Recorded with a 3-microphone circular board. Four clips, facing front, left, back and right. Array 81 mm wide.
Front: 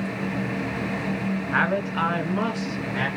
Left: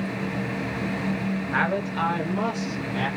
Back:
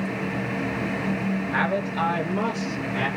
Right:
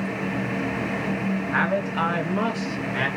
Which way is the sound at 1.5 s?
5° right.